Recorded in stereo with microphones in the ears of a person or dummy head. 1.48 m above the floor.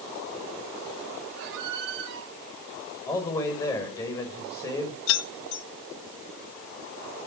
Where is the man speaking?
15° left (ahead or behind), 6 m.